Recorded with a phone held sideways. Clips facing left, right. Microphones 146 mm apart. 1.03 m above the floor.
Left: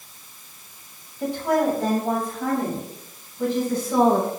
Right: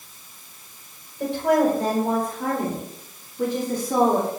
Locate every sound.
1.2 s a woman speaking: 75° right (ahead or behind), 5 m; by 4.3 s 50° right (ahead or behind), 3 m